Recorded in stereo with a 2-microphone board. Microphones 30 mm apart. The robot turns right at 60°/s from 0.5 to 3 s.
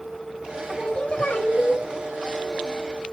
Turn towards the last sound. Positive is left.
turn(degrees=160)